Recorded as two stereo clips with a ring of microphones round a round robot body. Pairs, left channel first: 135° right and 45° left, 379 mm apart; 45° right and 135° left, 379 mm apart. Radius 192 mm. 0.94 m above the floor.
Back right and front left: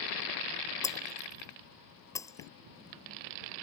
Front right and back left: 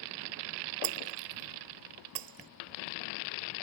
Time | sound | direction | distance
0.8 | breaking glass | 140° left | ?